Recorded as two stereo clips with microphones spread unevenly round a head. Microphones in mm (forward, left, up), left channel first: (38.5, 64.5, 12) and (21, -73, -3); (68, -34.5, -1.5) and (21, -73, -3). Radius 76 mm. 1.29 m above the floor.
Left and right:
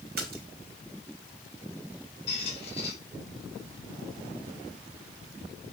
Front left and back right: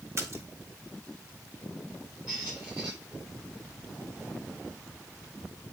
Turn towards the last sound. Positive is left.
turn(degrees=140)